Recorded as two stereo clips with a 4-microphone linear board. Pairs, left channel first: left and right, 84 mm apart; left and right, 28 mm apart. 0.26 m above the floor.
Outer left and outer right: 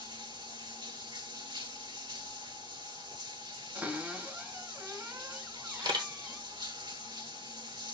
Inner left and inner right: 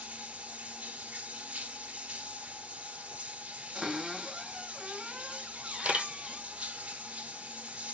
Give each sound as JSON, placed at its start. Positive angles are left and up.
{"t": 0.0, "sound": "running water", "side_deg": -60, "distance_m": 1.6}
{"t": 3.8, "sound": "a cupboard door", "side_deg": -20, "distance_m": 1.5}
{"t": 5.8, "sound": "a camera shutter", "side_deg": -60, "distance_m": 1.6}